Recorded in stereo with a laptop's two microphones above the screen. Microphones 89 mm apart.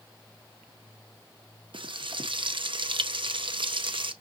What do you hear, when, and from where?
1.7 s frying: 70° right (ahead or behind), 0.7 m